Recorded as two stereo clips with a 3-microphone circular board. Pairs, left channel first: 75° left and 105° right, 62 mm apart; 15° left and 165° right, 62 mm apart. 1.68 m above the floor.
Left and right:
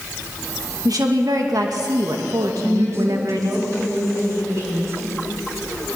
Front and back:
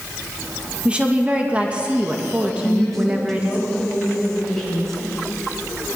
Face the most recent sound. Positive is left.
turn(degrees=-65)